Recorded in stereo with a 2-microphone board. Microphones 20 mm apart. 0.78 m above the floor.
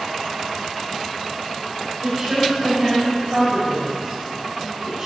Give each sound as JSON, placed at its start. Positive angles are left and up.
{"t": 2.0, "sound": "a woman speaking", "side_deg": -35, "distance_m": 4.0}